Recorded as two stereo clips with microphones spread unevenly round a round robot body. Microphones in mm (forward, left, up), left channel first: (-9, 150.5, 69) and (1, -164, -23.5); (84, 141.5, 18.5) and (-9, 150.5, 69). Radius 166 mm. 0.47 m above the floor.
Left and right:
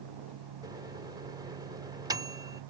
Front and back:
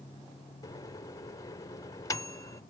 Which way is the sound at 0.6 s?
20° right.